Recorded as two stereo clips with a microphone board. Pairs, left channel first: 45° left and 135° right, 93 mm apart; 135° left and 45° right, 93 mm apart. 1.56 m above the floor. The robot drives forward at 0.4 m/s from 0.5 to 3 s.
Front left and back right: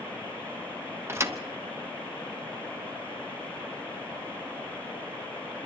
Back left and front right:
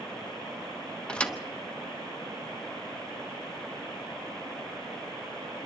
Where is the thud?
155° right, 0.9 m; by 1.4 s 160° right, 1.0 m.